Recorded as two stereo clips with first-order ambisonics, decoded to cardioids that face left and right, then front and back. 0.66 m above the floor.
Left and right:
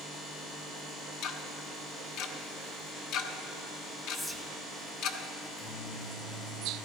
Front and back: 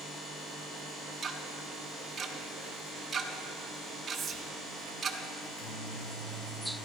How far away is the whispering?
About 0.6 m.